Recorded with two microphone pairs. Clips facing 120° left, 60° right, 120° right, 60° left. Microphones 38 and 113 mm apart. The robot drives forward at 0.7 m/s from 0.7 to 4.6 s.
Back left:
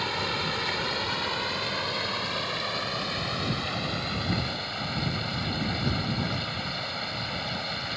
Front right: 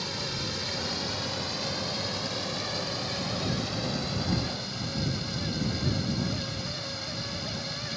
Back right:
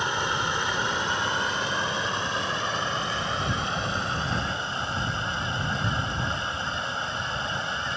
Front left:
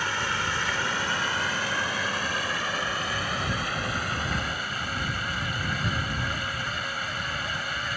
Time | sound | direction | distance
0.0 | running water | 170° left | ?